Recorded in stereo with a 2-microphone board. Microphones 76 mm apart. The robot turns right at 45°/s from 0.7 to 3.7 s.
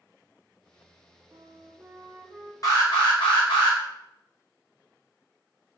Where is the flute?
55° right, 0.6 m; by 2.5 s straight ahead, 0.6 m.